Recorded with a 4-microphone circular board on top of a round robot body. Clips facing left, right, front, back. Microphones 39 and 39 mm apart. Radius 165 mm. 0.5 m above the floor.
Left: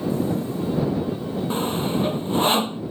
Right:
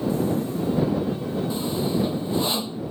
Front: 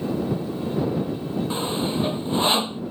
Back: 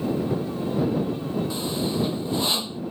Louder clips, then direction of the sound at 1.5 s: Left 3 dB, front 2 dB; 55° left.